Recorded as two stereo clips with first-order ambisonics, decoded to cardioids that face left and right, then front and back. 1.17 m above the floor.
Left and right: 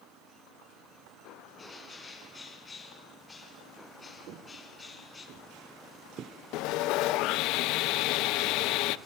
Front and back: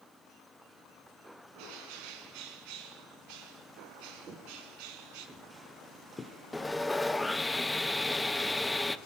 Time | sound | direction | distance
1.5 | a bird | 165° left | 3 m
4.3 | footsteps | 125° right | 2.5 m
6.5 | sawing | 80° left | 0.6 m